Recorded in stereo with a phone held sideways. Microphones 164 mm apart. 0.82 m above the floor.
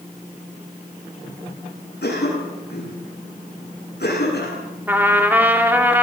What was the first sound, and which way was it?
A cough, 85° left.